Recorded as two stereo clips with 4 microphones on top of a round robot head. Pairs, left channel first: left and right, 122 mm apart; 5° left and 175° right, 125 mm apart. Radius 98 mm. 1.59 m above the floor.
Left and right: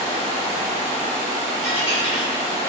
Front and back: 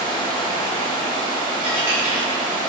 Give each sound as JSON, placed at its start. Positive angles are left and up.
{"t": 0.0, "sound": "running water", "azimuth_deg": 165, "distance_m": 1.1}
{"t": 1.6, "sound": "a dropped coin", "azimuth_deg": 130, "distance_m": 0.9}